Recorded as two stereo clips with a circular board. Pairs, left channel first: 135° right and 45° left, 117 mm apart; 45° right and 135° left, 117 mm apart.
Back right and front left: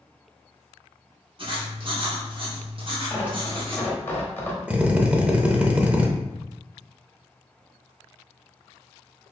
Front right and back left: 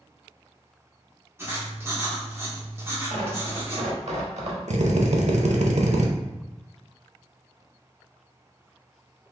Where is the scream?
I don't hear a scream.